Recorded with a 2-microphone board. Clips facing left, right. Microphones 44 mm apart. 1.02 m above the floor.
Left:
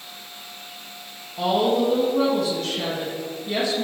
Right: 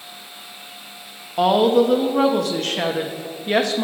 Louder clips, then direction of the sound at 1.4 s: Right 5 dB; 60° right (ahead or behind).